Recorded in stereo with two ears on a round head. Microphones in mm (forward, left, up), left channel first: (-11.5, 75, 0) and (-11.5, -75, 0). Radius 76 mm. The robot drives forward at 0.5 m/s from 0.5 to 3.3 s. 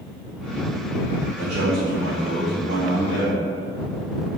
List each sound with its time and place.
1.4 s a man speaking: 45° right (ahead or behind), 1.3 m; by 3.4 s 30° right (ahead or behind), 1.9 m